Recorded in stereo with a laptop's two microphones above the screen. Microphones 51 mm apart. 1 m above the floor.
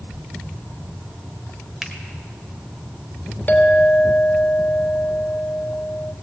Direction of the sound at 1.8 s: 5° right (ahead or behind).